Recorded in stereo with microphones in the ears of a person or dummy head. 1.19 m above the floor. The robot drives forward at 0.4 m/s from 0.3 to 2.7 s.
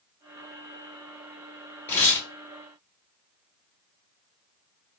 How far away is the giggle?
No giggle in this recording.